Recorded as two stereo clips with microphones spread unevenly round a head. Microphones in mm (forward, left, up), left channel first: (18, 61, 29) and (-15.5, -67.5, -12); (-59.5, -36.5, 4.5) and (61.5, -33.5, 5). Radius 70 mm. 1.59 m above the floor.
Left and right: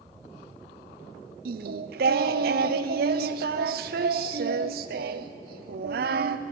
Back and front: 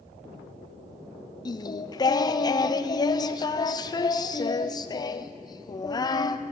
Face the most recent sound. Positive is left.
turn(degrees=-120)